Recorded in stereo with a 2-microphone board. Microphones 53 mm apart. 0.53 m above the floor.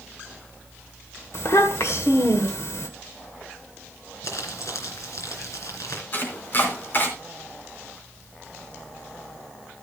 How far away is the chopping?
About 2.5 m.